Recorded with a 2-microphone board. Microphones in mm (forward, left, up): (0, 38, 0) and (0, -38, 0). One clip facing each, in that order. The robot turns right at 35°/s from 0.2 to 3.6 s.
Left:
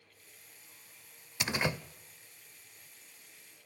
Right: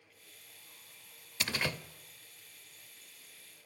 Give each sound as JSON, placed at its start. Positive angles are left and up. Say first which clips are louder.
{"t": 1.4, "sound": "a door slam", "louder": "left 3 dB", "side_deg": 20, "distance_m": 0.5}